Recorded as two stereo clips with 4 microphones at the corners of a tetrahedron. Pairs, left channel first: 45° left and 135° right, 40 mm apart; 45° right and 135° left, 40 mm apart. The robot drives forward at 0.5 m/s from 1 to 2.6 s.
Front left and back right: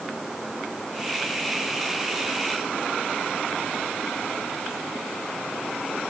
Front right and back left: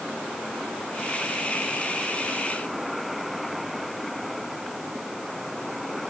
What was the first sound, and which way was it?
Only background noise.